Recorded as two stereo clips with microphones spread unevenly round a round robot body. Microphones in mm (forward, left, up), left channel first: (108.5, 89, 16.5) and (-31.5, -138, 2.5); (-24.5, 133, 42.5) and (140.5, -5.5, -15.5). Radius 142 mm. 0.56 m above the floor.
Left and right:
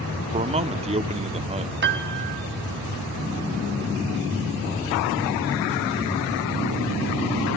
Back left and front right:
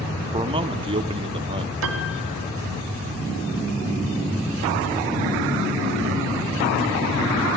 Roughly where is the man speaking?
Right.